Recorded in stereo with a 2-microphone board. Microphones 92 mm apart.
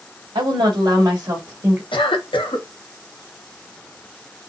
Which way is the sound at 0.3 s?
65° right (ahead or behind).